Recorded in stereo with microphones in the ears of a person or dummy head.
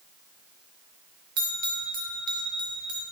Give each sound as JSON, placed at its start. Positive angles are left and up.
{"t": 1.4, "sound": "a bell", "side_deg": -25, "distance_m": 1.3}